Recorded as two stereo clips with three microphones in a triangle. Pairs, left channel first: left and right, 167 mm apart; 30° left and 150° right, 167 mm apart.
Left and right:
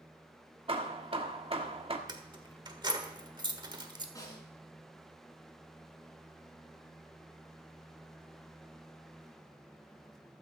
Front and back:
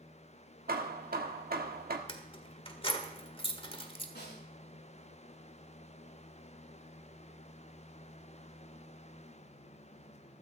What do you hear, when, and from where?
0.7 s hammering: 140° right, 1.6 m
2.1 s keys jangling: 25° right, 1.5 m
4.2 s a snare drum: 20° left, 7.5 m